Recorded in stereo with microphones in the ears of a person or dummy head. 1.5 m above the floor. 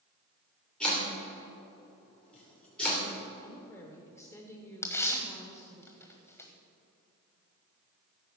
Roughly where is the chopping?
Centre.